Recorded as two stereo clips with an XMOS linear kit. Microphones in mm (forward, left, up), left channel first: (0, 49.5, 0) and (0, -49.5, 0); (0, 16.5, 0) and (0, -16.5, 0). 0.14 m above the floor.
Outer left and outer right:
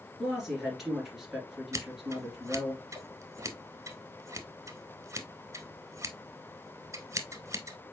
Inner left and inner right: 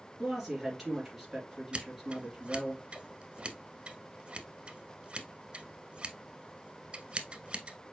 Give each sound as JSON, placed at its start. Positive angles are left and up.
{"t": 0.2, "sound": "a woman speaking", "side_deg": -5, "distance_m": 2.5}
{"t": 1.7, "sound": "scissors", "side_deg": -30, "distance_m": 0.7}